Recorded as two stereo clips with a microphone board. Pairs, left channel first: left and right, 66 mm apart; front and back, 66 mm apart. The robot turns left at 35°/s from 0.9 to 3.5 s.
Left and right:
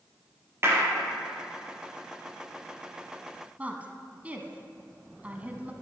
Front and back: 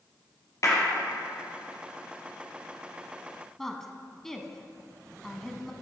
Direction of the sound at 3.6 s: 75° right.